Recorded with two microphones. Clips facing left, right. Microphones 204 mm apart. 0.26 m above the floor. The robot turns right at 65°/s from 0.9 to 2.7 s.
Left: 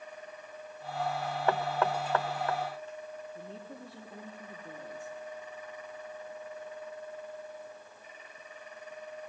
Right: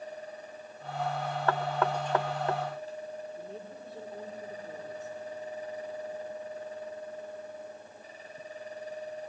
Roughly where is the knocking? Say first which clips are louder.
Even; centre.